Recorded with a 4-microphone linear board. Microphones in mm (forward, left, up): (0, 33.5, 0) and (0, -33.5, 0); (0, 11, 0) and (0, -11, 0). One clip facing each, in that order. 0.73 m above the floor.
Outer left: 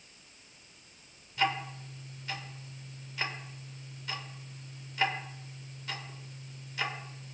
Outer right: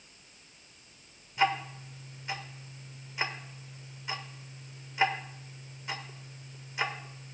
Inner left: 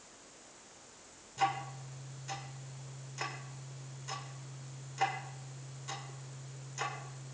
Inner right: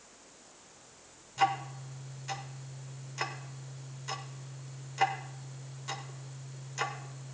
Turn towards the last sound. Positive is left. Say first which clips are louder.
# outer right 3 dB, inner right 4 dB
turn(degrees=-20)  # may be behind; listen again after turning